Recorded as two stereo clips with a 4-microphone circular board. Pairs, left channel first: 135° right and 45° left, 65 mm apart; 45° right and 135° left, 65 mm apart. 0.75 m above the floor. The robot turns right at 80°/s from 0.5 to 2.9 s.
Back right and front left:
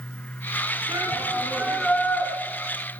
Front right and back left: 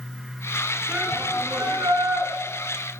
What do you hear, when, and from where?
0.9 s a shout: 60° left, 9 m; by 2.3 s 170° left, 9 m